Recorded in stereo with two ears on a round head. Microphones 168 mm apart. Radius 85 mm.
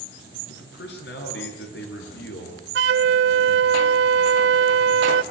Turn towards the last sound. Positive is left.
turn(degrees=-65)  # may be behind; listen again after turning